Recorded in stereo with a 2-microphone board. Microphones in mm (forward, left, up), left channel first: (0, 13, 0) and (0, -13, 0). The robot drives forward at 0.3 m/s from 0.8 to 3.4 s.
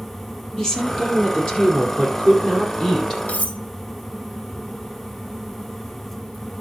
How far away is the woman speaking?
About 4 m.